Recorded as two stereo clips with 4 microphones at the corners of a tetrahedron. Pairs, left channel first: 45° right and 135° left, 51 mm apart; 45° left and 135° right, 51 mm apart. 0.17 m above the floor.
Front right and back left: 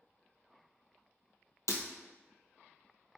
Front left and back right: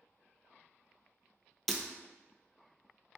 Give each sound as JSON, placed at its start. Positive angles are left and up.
{"t": 1.7, "sound": "breaking glass", "azimuth_deg": -40, "distance_m": 0.5}